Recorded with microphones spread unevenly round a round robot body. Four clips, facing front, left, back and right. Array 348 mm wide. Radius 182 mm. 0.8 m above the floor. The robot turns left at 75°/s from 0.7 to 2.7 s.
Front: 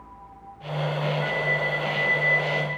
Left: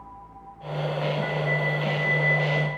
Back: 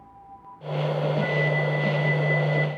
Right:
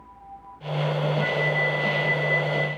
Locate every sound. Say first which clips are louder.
1.2 s a flute: right 2 dB, back 2 dB; 110° right, 1.4 m; by 2.7 s 135° left, 1.4 m